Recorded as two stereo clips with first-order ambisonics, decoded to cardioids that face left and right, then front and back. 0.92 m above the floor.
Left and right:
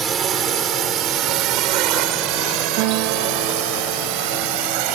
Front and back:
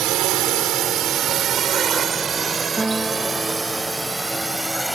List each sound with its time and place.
0.0 s a drone: 150° right; by 5.0 s 90° right
2.8 s a guitar: 100° right